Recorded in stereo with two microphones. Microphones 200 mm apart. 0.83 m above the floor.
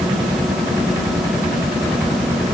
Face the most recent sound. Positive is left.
No sound to turn to.